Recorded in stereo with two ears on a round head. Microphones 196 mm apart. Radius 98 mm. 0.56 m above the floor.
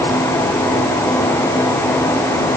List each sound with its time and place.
Only background noise.